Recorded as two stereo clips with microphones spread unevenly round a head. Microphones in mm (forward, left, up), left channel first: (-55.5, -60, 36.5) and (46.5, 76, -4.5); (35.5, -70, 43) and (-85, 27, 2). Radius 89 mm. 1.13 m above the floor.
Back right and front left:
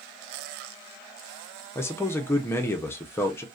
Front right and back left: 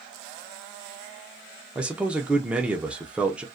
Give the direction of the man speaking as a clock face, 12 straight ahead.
7 o'clock.